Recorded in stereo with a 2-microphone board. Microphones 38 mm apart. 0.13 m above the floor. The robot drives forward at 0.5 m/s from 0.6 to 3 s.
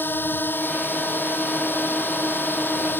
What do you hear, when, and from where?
0.0 s a drone: 65° left (ahead or behind)